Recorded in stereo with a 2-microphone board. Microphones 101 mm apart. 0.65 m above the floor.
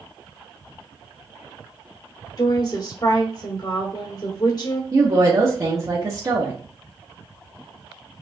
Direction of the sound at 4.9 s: 35° right (ahead or behind).